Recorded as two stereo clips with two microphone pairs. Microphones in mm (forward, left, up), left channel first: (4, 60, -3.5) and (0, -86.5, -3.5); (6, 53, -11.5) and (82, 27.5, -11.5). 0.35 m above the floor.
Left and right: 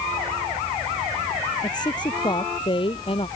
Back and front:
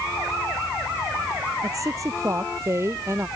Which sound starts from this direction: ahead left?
A woman speaking, at 1.6 s.